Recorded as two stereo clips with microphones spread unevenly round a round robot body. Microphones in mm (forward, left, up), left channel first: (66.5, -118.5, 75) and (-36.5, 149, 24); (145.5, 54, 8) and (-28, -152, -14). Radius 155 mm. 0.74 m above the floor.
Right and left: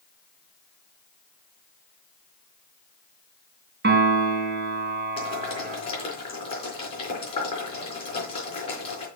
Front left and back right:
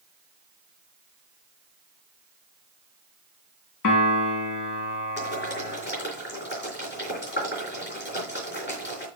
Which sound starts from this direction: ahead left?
A piano, at 3.8 s.